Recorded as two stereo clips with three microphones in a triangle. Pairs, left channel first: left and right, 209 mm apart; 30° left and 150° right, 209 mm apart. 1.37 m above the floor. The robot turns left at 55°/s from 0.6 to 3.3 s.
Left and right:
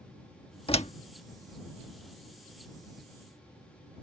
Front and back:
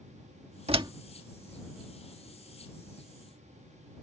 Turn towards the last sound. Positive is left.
turn(degrees=10)